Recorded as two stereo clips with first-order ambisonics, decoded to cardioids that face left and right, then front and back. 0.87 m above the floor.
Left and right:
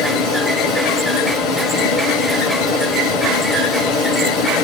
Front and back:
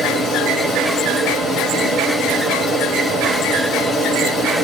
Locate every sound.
0.0 s running water: 80° left, 2.5 m